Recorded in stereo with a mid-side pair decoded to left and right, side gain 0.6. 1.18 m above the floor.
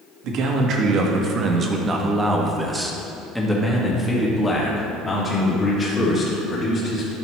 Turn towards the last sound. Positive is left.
turn(degrees=35)